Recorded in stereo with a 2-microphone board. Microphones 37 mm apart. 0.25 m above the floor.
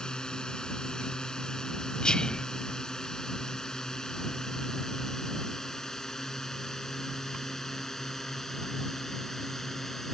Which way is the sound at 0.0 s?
20° left (ahead or behind).